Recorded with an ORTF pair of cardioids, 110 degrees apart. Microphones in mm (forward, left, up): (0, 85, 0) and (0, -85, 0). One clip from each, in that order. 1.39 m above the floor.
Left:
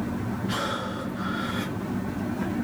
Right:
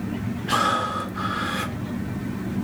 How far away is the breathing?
About 1.3 m.